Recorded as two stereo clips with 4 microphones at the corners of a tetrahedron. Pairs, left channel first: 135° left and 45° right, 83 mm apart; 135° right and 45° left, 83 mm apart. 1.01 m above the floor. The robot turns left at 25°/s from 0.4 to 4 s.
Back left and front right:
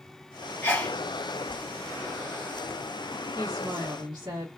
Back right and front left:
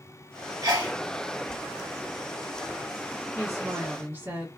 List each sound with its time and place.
0.6 s a sneeze: 75° left, 1.6 m; by 1.0 s 65° left, 1.6 m
3.4 s a woman speaking: 5° left, 1.6 m; by 4.5 s 10° right, 1.6 m